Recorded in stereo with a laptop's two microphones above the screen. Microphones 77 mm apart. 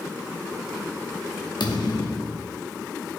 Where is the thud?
65° left (ahead or behind), 0.8 m.